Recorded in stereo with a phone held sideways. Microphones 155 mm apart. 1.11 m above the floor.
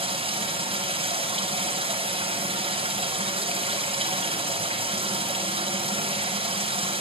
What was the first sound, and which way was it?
Running water, 35° right (ahead or behind).